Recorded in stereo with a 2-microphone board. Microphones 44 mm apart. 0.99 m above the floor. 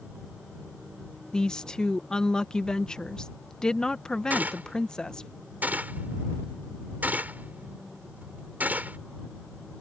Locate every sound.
1.3 s a woman speaking: 15° left (ahead or behind)
4.3 s a gunshot: 40° right (ahead or behind)